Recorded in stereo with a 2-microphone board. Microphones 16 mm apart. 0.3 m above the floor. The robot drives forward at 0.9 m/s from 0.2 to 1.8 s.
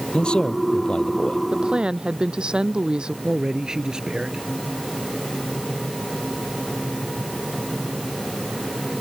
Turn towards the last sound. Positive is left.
turn(degrees=-50)  # may be behind; listen again after turning